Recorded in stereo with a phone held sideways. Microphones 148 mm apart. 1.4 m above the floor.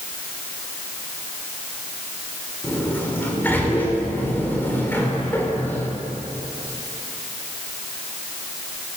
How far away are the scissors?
No scissors in this recording.